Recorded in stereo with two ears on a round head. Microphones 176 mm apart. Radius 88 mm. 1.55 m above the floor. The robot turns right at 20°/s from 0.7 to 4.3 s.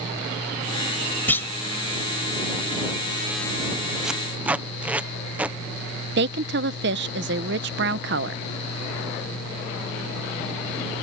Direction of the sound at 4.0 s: 5° right (ahead or behind).